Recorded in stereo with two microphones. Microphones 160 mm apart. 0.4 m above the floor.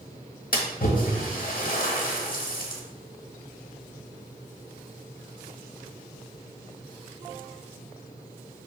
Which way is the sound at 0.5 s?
60° left (ahead or behind).